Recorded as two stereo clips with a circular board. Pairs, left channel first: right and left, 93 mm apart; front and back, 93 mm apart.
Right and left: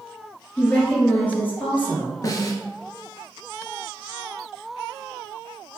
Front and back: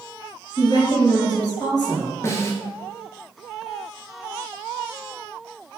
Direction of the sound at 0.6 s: 25° right.